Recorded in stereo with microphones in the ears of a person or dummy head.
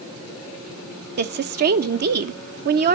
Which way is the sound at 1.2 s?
50° right (ahead or behind).